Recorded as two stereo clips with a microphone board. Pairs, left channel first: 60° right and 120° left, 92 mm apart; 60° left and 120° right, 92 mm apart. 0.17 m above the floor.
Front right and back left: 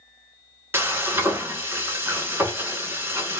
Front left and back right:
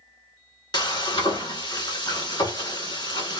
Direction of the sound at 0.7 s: 60° left.